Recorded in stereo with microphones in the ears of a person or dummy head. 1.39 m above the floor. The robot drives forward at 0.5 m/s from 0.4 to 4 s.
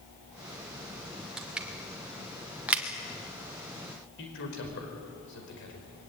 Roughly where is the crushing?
Centre.